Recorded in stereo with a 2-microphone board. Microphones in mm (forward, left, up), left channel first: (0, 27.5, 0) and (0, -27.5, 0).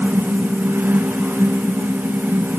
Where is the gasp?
I don't hear a gasp.